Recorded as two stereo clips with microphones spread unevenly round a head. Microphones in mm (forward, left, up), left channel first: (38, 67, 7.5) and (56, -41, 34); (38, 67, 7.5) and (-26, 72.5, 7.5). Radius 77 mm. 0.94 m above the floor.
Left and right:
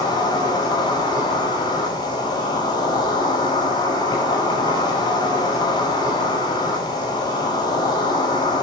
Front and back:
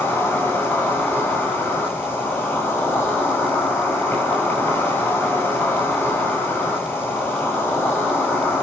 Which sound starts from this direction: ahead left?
An insect, at 0.0 s.